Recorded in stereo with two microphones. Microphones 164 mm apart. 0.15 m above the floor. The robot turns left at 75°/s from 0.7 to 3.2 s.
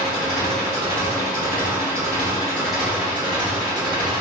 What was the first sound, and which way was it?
An engine running, 155° left.